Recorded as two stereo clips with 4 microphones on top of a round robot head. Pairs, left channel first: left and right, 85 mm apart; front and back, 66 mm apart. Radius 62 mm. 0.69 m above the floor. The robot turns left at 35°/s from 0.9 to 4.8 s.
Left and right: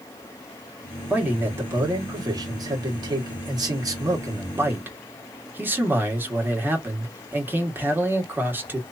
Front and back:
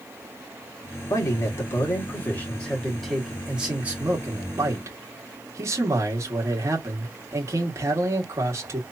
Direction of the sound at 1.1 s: 20° right.